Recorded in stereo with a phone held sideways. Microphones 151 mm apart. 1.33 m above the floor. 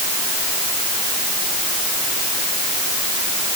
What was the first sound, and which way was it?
Only background noise.